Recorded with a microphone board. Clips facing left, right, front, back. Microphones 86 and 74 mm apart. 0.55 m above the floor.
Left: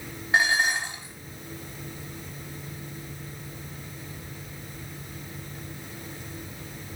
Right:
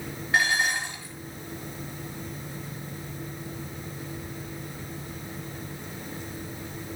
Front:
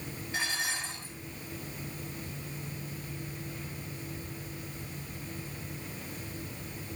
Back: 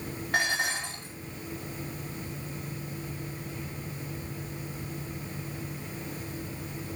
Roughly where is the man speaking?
I don't hear a man speaking.